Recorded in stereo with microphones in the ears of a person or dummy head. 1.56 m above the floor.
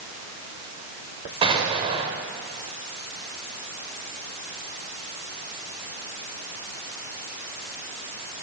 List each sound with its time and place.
1.4 s an explosion: 30° right (ahead or behind), 2 m